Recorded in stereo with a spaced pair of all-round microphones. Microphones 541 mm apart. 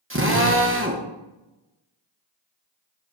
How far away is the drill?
About 1.1 m.